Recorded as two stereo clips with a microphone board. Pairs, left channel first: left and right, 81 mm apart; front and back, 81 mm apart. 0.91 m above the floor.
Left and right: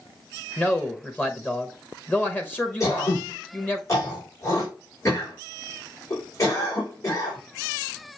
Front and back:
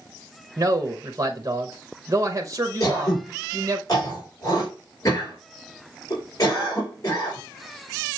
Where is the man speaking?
150° left, 1.0 m.